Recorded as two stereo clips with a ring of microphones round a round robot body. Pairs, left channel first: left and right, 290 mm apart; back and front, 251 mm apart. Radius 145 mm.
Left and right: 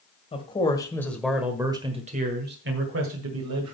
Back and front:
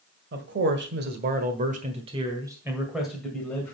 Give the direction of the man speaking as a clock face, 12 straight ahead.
11 o'clock.